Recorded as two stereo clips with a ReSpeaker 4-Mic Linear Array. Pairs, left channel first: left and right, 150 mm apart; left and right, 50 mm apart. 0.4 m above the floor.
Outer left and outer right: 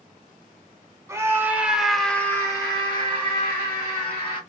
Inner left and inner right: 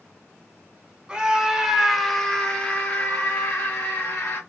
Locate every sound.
1.1 s a scream: 20° right (ahead or behind), 1.0 m; by 4.4 s 45° left (ahead or behind), 1.6 m